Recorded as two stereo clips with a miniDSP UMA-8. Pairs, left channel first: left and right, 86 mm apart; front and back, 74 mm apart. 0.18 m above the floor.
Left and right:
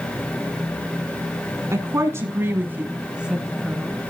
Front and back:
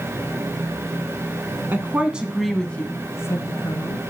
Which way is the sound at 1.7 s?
130° right.